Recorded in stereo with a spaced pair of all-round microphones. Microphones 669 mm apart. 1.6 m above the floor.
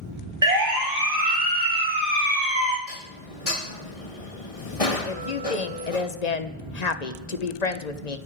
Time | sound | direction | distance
0.4 | a siren | 80° right | 3.5 m
2.9 | dishes clattering | 55° left (ahead or behind) | 1.7 m
5.0 | a woman speaking | 75° left (ahead or behind) | 1.2 m